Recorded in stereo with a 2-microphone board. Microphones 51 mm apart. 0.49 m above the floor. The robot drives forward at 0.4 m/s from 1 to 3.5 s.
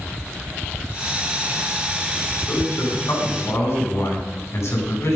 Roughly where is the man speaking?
Left.